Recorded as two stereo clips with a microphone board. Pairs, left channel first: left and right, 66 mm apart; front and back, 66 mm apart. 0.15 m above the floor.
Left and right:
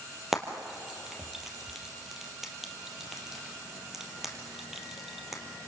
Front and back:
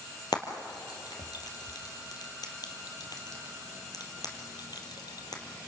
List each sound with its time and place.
0.3 s frying: 5° right, 2.5 m